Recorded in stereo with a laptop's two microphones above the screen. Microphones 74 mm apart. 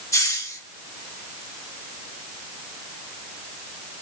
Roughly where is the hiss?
Left.